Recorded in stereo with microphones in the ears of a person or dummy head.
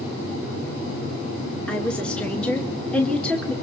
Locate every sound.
1.7 s a woman speaking: 5° left (ahead or behind), 1.8 m